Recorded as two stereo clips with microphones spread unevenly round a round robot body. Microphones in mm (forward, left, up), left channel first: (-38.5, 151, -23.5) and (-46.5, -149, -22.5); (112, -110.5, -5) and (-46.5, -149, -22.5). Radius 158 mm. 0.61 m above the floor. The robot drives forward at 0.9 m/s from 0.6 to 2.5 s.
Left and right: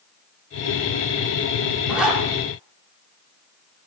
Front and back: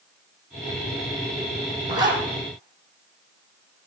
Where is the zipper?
Straight behind, 5 m.